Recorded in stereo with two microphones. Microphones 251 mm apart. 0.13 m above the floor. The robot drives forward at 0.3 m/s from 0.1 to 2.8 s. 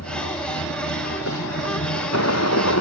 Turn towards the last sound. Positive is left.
turn(degrees=85)